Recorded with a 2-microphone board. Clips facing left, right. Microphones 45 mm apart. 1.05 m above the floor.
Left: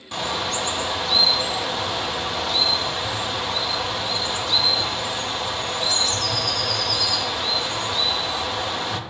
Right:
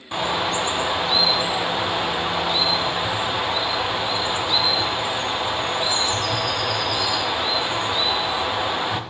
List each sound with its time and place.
0.1 s a bird: 20° right (ahead or behind), 0.8 m